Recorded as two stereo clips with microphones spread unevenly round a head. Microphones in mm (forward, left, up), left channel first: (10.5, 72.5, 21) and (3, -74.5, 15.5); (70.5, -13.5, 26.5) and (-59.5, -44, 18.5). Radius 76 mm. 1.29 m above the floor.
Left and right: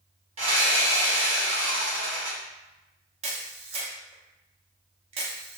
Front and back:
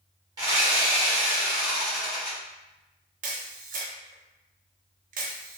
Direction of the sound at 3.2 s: 145° right.